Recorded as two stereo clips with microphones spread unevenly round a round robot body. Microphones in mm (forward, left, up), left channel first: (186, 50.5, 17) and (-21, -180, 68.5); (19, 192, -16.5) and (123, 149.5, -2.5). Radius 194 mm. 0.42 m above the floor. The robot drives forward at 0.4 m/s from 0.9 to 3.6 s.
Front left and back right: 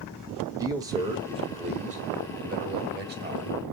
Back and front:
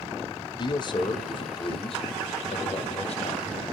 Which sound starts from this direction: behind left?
A man speaking, at 0.6 s.